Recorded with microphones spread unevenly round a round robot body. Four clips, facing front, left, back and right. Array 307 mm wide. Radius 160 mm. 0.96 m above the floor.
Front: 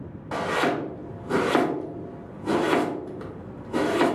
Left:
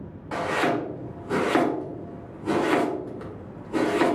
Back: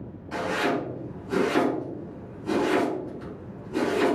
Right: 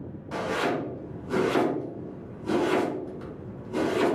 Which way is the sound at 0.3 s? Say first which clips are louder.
Left 3 dB, front 2 dB; 35° left.